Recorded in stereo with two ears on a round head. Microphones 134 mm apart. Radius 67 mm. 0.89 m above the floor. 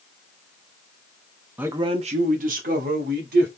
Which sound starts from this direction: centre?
A man speaking, at 1.6 s.